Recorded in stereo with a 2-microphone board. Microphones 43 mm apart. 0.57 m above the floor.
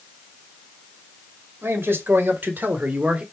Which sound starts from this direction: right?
A man speaking, at 1.6 s.